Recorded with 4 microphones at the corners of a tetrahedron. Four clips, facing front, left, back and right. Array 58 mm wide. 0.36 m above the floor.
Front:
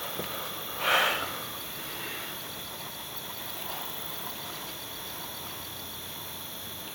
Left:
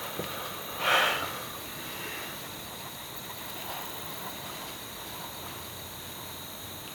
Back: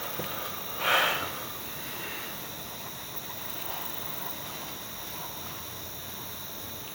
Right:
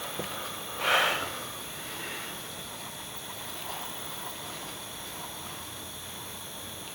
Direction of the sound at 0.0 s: 35° right.